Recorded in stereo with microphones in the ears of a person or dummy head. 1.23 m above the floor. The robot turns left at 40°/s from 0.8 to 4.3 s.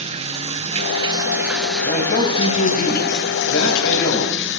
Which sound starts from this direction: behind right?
Running water, at 0.0 s.